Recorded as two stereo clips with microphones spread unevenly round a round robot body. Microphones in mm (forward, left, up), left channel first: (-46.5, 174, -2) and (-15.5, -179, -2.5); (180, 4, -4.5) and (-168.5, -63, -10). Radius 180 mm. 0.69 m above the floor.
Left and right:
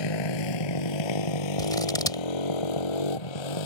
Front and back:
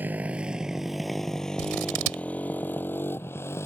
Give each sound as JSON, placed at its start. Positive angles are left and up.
{"t": 0.0, "sound": "a motorcycle", "azimuth_deg": 105}
{"t": 1.6, "sound": "scissors", "azimuth_deg": 175}